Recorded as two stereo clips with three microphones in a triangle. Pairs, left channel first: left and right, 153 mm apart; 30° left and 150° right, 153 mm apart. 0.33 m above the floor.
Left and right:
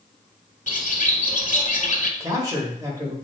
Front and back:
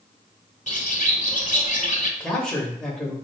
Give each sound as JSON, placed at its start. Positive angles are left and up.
{"t": 0.7, "sound": "a bird", "azimuth_deg": 65, "distance_m": 0.7}
{"t": 2.2, "sound": "a man speaking", "azimuth_deg": -50, "distance_m": 1.1}